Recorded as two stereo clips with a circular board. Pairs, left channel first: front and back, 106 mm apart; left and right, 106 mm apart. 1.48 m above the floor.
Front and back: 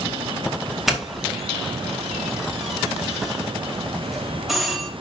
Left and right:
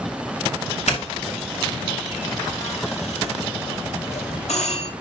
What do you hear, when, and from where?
0.9 s a doorbell: 90° left, 2 m